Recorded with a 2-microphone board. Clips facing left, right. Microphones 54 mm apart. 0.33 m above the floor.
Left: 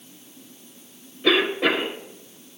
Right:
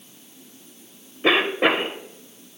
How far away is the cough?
About 1.1 m.